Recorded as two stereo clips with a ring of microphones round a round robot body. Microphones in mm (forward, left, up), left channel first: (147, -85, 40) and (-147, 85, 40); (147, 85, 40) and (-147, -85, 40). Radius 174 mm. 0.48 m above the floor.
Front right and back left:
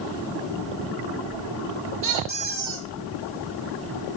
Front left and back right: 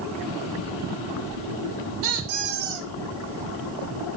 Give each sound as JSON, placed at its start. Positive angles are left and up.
{"t": 2.0, "sound": "a squeak", "azimuth_deg": -140, "distance_m": 4.5}